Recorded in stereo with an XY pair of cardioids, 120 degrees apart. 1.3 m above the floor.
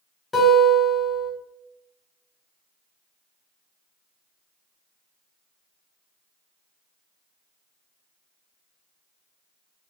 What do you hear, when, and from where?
0.3 s a guitar: 20° left, 1.1 m